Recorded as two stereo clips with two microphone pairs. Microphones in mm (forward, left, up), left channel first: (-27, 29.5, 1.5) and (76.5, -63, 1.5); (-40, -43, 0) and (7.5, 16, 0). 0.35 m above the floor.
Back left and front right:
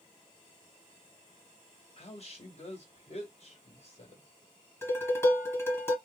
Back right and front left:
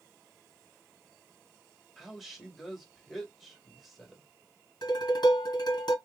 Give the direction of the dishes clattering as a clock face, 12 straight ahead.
5 o'clock.